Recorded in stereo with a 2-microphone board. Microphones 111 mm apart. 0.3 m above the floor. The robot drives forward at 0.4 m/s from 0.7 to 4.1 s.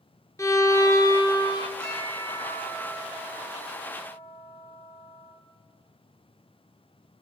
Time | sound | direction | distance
0.4 | a violin | 25° left (ahead or behind) | 1.0 m
1.8 | a bell | 35° left (ahead or behind) | 5 m